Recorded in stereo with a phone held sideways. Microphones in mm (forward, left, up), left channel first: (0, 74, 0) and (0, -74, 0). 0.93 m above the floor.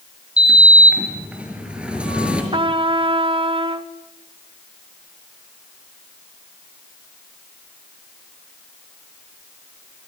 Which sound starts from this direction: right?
A trumpet, at 2.5 s.